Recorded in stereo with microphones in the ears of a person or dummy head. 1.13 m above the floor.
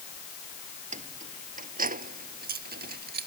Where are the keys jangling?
35° right (ahead or behind); by 3.3 s 50° right (ahead or behind).